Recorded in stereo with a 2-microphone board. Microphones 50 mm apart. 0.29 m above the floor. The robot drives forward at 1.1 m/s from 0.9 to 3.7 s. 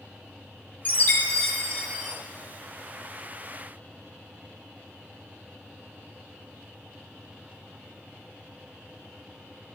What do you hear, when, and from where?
0.8 s a chime: 30° left (ahead or behind), 1.3 m; by 2.1 s 20° left (ahead or behind), 1.9 m